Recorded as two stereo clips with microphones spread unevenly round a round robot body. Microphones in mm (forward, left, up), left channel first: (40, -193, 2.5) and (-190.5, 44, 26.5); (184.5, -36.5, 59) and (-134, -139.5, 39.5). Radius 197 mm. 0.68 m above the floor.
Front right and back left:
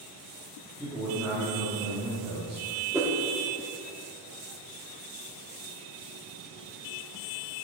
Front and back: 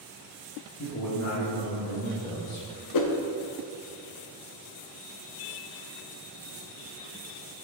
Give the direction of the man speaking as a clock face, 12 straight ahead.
11 o'clock.